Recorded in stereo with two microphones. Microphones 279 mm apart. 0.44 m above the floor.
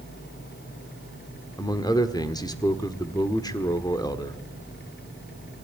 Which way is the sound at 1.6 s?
15° left (ahead or behind).